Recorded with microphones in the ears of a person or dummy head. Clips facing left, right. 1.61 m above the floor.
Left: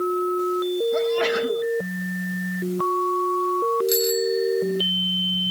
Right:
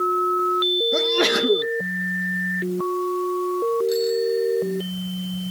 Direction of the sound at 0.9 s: 65° right (ahead or behind).